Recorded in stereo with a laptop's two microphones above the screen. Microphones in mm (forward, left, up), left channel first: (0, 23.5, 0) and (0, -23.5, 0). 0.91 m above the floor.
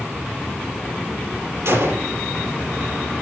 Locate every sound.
1.6 s a gunshot: 70° right (ahead or behind), 4 m